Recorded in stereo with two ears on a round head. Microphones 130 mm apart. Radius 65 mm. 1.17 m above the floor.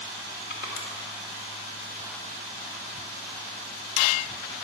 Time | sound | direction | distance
0.5 | crushing | 75° left (ahead or behind) | 2.5 m